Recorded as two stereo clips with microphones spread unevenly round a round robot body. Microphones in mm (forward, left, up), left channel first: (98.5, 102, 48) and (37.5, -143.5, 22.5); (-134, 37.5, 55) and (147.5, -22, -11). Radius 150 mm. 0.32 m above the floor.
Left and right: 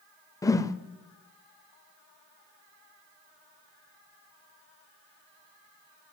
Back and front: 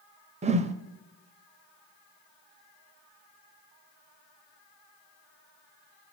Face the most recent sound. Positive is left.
turn(degrees=0)